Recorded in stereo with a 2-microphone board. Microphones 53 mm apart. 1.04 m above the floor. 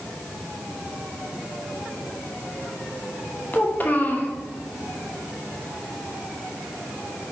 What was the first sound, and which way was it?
A child speaking, 35° left (ahead or behind).